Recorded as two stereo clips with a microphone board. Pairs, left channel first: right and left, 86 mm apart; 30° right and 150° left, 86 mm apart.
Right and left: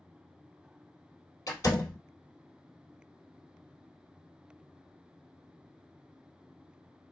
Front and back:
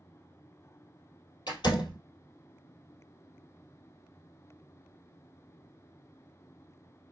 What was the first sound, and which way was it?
A door slam, 45° right.